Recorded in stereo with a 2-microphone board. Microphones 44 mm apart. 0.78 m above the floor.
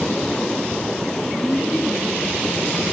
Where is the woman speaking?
40° left (ahead or behind), 5 m.